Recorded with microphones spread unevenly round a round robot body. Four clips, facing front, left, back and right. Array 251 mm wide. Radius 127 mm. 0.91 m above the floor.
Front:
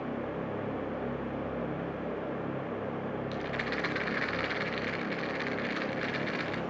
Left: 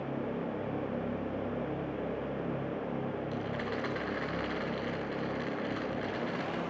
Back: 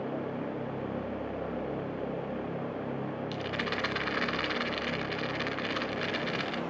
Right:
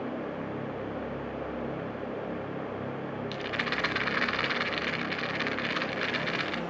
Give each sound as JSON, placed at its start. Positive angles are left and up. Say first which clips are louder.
{"t": 3.3, "sound": "a rattle", "louder": "right 2 dB, even", "azimuth_deg": -105, "distance_m": 3.5}